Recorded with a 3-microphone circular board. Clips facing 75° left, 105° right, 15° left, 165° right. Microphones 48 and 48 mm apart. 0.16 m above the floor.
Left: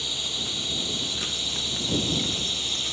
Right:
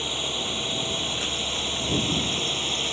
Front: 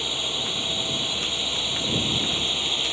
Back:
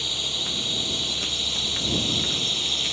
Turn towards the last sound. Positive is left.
turn(degrees=-55)